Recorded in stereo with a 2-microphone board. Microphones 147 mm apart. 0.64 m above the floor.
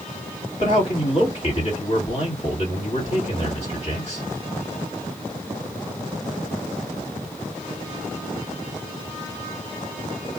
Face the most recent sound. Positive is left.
turn(degrees=50)  # may be behind; listen again after turning